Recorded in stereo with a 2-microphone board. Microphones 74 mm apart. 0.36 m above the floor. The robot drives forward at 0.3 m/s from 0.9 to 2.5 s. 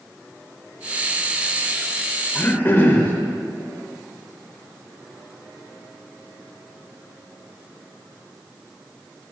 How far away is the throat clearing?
About 0.8 m.